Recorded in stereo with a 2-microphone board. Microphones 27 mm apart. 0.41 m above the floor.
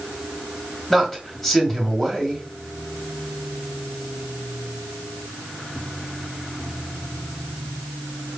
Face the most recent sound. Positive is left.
turn(degrees=10)  # may be behind; listen again after turning